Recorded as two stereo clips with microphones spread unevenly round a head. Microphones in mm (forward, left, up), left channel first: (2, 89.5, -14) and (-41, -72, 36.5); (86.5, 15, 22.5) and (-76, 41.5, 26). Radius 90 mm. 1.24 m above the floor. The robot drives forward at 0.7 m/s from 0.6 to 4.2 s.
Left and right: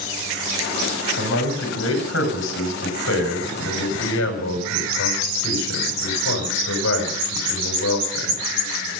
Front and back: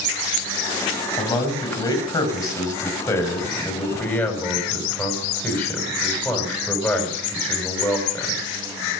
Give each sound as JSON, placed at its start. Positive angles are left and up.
{"t": 1.2, "sound": "a man speaking", "azimuth_deg": 50, "distance_m": 7.0}